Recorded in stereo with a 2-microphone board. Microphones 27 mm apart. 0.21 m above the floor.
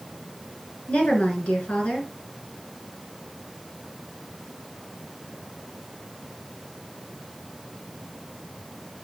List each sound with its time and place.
0.9 s a woman speaking: 55° left (ahead or behind), 2.5 m